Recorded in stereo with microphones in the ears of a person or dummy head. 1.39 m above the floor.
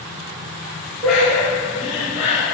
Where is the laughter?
5° right (ahead or behind), 1.9 m; by 2.5 s 20° right (ahead or behind), 3 m.